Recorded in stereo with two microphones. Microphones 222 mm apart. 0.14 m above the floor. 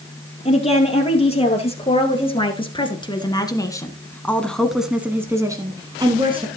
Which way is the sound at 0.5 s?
30° left (ahead or behind).